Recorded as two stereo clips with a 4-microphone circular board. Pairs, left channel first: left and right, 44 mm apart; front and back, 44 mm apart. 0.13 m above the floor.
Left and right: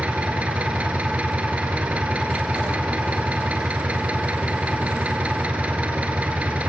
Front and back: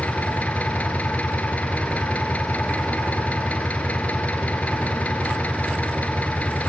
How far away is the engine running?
About 1.7 m.